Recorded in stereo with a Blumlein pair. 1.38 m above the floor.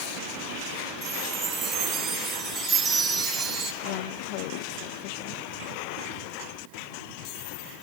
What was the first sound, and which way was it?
A chime, 20° right.